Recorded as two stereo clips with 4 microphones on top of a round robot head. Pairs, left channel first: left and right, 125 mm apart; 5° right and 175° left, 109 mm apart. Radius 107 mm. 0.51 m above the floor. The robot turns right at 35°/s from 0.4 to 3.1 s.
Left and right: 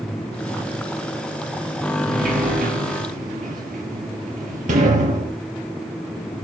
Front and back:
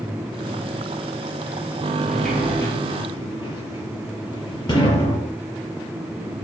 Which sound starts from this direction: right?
A sliding door, at 2.1 s.